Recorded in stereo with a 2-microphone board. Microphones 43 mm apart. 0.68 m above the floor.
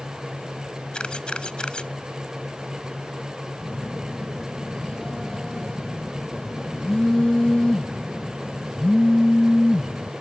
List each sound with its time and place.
0.9 s a camera shutter: 25° left (ahead or behind)
3.6 s a phone buzzing: 20° left (ahead or behind)